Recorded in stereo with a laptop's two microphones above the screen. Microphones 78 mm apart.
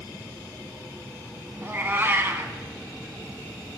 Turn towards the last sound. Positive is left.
turn(degrees=-30)  # may be behind; listen again after turning